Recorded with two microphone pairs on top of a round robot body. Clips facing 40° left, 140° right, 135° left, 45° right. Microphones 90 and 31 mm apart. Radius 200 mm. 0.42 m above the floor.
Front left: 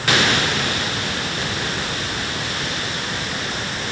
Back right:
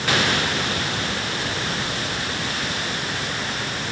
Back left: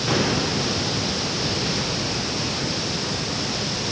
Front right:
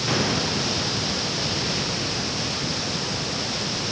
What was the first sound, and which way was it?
Only background noise.